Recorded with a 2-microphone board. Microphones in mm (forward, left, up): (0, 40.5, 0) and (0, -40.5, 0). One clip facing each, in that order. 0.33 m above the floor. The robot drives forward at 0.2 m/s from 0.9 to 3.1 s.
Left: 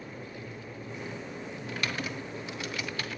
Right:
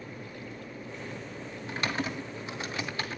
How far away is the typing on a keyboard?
About 2.5 m.